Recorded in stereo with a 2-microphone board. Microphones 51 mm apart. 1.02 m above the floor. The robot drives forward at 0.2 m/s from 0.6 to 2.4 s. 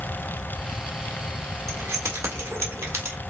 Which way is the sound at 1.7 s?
75° right (ahead or behind).